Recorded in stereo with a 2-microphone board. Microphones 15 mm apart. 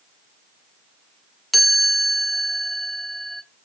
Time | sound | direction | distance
1.5 | a chime | 5° left (ahead or behind) | 0.7 m